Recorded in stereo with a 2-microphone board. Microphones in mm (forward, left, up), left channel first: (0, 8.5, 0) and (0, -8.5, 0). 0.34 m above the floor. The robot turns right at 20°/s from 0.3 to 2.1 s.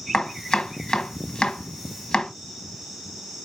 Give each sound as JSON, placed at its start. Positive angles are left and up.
{"t": 0.1, "sound": "chopping", "side_deg": 60, "distance_m": 1.3}